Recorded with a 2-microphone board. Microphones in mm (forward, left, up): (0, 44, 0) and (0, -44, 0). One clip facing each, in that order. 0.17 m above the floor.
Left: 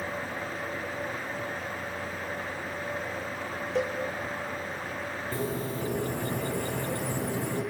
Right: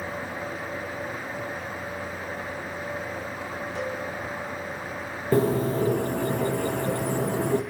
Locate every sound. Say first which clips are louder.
3.8 s a cowbell: left 4 dB; 80° left, 4 m
5.3 s a bird: right 12 dB; 60° right (ahead or behind), 3.5 m